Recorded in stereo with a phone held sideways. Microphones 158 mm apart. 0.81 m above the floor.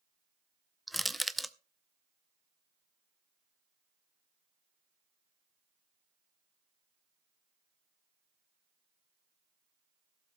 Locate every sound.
0.9 s crushing: centre (ahead or behind), 0.6 m